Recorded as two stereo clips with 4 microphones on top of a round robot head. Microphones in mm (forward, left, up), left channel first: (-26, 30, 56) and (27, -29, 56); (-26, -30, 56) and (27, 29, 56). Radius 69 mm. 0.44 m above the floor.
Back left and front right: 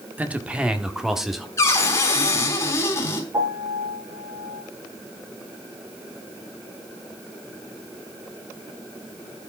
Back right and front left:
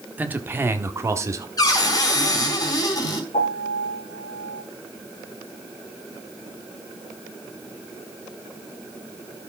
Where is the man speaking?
Straight ahead, 1.4 m; by 1.5 s 40° left, 1.6 m.